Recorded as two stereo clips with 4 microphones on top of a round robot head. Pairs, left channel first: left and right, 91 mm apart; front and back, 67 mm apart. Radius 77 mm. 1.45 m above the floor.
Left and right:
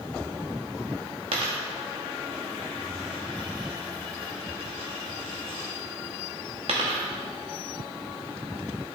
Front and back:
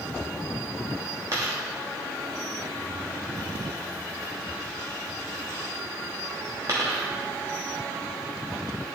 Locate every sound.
1.3 s a dropped coin: 115° right, 1.0 m